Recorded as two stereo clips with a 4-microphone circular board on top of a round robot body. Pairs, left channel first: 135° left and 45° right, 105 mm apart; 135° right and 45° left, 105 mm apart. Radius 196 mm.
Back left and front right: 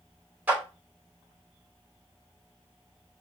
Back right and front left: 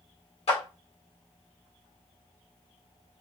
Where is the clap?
120° right, 2.5 m.